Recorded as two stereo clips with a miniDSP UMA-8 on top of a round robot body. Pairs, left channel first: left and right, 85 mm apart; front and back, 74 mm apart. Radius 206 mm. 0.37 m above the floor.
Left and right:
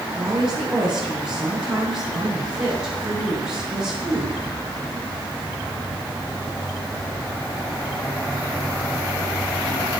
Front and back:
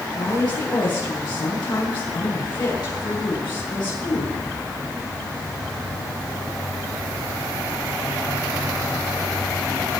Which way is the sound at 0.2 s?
10° right.